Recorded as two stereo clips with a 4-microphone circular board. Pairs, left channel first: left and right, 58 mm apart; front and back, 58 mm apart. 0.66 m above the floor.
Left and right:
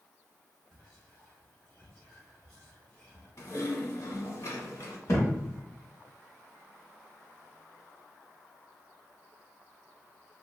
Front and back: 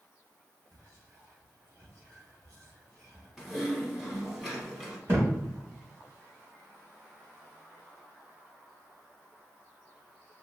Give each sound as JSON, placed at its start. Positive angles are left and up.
{"t": 0.7, "sound": "whispering", "azimuth_deg": 165, "distance_m": 1.6}
{"t": 3.4, "sound": "typing on a keyboard", "azimuth_deg": 95, "distance_m": 0.8}
{"t": 5.1, "sound": "a thud", "azimuth_deg": 130, "distance_m": 1.4}